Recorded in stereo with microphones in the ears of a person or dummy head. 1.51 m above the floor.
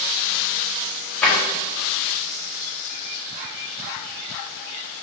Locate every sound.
1.2 s a drawer: 5° left (ahead or behind), 1.7 m